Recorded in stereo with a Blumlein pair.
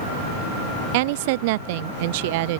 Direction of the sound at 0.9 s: 50° right.